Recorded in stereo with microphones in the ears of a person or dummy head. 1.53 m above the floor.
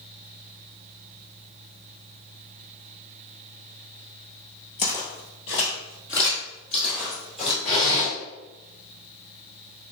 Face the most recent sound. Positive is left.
turn(degrees=20)  # may be behind; listen again after turning